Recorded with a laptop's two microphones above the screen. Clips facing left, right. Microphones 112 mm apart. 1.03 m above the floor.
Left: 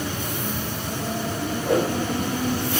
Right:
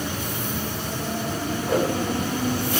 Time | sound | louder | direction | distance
1.6 | a whoosh | left 1 dB | 75° left (ahead or behind) | 5.5 m